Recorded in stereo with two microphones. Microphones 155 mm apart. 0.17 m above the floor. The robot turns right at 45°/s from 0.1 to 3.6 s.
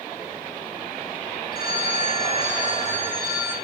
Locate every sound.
1.5 s a phone ringing: 100° left, 6.5 m; by 3.5 s 170° right, 6.5 m